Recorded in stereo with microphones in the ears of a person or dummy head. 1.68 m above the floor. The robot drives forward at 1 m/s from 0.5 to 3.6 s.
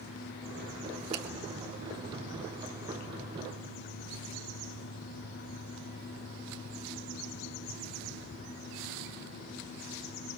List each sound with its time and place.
1.1 s a finger snap: 80° right, 3 m